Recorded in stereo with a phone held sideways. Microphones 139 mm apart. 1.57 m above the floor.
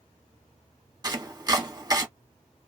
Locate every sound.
1.0 s chopping: 30° right (ahead or behind), 1.2 m